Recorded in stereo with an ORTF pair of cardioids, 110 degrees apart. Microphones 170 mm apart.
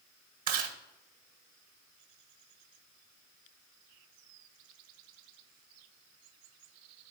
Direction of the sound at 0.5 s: 60° right.